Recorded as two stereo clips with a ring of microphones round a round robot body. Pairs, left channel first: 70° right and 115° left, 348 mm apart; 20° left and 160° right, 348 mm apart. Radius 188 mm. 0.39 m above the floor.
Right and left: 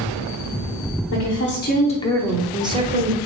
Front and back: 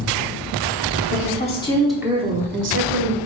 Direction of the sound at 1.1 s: 30° right.